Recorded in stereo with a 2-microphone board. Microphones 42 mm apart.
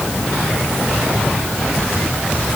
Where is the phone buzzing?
I don't hear a phone buzzing.